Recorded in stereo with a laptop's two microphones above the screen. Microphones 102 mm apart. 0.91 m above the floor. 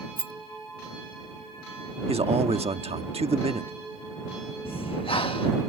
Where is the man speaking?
80° right.